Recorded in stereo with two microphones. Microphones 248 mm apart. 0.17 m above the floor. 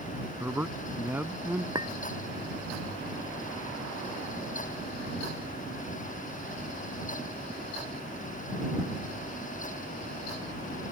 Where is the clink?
15° right (ahead or behind).